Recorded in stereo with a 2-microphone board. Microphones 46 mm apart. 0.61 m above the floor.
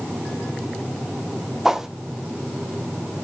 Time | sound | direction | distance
1.6 | a whoosh | 10° right (ahead or behind) | 1.1 m